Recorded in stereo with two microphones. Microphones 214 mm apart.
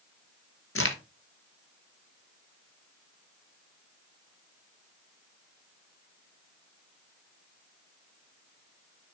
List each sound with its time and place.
0.8 s a crack: 85° left, 1.0 m